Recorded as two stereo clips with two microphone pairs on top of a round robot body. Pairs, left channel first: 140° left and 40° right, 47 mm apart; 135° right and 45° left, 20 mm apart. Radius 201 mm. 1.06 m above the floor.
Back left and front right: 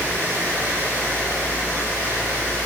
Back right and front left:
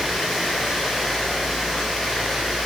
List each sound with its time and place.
0.0 s running water: 45° right, 5.5 m